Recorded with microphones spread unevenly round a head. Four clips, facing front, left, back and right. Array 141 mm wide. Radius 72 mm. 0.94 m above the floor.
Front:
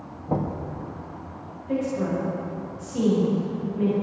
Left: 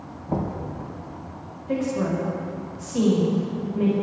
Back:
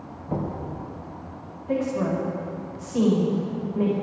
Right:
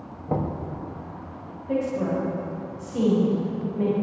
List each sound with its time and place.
0.3 s knocking: 50° right, 4 m
1.7 s a woman speaking: 175° right, 5.5 m